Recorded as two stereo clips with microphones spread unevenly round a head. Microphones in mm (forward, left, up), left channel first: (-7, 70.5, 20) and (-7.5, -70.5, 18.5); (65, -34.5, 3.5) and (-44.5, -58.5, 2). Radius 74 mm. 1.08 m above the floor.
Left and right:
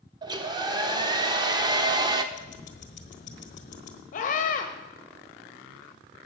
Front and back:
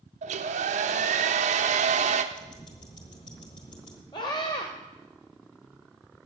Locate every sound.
0.2 s a hair dryer: 150° right, 0.9 m
2.3 s ticking: 65° left, 1.2 m
4.1 s a scream: 70° left, 1.1 m